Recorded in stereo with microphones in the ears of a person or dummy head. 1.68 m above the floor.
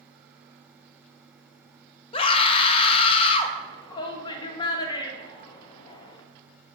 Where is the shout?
20° left (ahead or behind), 1.0 m.